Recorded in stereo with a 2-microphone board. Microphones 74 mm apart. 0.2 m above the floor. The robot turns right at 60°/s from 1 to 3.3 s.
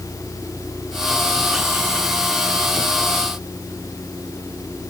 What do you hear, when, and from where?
Only background noise.